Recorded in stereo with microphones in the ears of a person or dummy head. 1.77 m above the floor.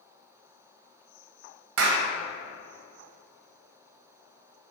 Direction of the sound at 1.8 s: 65° right (ahead or behind).